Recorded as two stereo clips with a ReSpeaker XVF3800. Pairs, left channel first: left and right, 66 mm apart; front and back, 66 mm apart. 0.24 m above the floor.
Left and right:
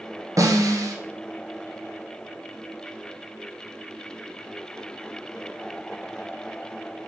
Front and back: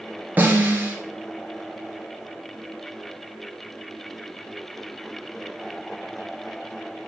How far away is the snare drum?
About 2.5 m.